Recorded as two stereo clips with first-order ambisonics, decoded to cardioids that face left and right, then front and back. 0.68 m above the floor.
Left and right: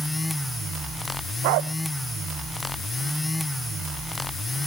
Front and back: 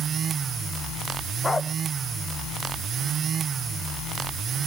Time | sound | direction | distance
1.4 | a dog barking | 80° right | ?